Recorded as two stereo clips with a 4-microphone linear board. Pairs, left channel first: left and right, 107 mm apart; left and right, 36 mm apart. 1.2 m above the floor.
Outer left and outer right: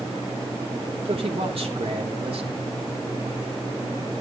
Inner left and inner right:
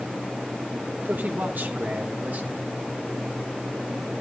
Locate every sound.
1.1 s a man speaking: 60° right (ahead or behind), 3.5 m